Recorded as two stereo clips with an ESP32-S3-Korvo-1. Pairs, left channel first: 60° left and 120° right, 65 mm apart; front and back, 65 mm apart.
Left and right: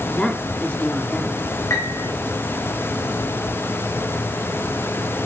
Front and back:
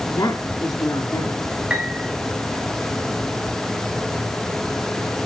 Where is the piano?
105° left, 4 m.